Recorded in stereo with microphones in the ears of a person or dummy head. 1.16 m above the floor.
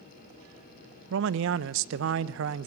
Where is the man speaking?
65° right (ahead or behind), 0.7 m.